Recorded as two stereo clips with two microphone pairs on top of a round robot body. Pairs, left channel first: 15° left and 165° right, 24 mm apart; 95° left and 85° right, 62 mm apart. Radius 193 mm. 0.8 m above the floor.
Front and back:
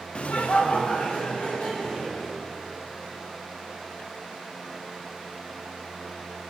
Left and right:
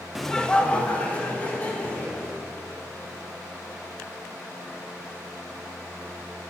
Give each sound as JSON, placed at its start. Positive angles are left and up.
{"t": 0.1, "sound": "laughter", "azimuth_deg": 0, "distance_m": 0.6}